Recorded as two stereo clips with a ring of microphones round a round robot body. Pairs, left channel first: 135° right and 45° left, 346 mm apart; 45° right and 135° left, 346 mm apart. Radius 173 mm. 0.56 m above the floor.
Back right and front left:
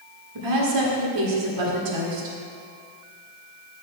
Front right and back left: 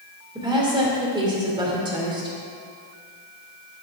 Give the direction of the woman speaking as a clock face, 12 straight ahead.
10 o'clock.